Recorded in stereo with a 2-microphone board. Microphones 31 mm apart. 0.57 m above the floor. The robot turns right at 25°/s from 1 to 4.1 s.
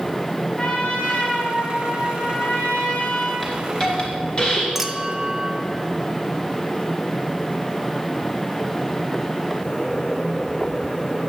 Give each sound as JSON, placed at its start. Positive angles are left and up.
{"t": 0.6, "sound": "a trumpet", "azimuth_deg": 45, "distance_m": 3.0}
{"t": 3.4, "sound": "a hiss", "side_deg": 15, "distance_m": 2.5}
{"t": 4.8, "sound": "a clink", "side_deg": -10, "distance_m": 0.8}